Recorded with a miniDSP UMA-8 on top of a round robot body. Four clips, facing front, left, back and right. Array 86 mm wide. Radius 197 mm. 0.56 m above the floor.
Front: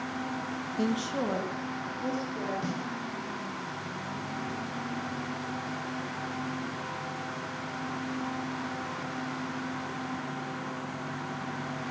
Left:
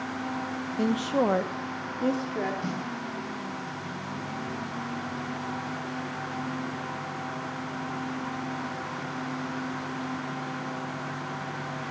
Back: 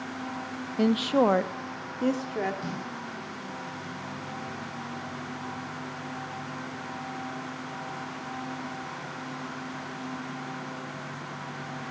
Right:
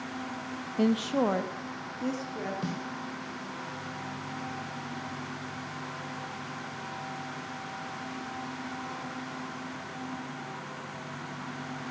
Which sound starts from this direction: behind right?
A woman speaking, at 0.8 s.